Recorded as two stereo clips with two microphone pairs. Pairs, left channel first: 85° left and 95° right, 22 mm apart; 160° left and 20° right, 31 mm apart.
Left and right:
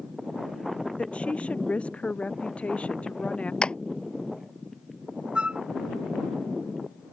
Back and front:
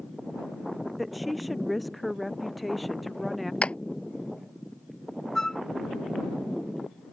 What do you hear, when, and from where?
1.0 s a woman speaking: 70° left
3.6 s a clap: 120° left
5.3 s a flute: 125° right